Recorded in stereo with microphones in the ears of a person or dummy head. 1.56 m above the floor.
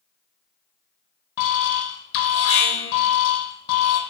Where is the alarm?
65° left (ahead or behind), 0.6 m.